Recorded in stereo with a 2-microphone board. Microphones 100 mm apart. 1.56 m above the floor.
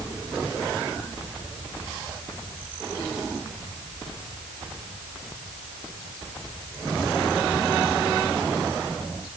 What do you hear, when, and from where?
Only background noise.